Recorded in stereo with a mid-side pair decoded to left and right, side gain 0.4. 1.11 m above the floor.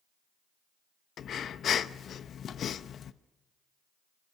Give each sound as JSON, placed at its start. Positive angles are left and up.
{"t": 1.2, "sound": "breathing", "azimuth_deg": 65, "distance_m": 0.7}